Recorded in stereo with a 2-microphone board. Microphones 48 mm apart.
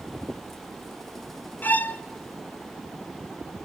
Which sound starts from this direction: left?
A violin, at 1.6 s.